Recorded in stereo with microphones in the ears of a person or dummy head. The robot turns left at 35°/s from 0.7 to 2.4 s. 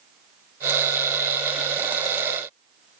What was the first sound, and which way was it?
Only background noise.